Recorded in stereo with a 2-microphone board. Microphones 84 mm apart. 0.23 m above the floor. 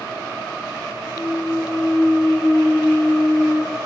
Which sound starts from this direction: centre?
A clunk, at 1.2 s.